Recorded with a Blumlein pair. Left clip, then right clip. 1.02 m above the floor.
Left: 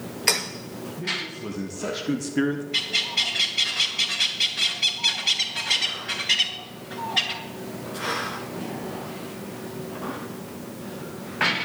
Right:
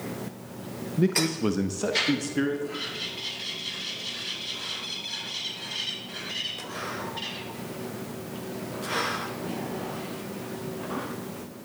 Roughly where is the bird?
Ahead left.